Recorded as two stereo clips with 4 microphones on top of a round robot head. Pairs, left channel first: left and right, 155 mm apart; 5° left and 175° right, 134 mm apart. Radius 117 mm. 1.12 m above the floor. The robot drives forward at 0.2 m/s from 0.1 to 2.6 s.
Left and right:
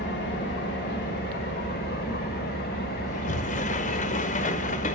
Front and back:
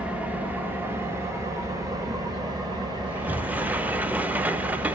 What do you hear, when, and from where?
0.0 s an engine running: 105° left, 1.1 m; by 5.0 s 125° left, 1.4 m
3.1 s a sliding door: 110° left, 0.5 m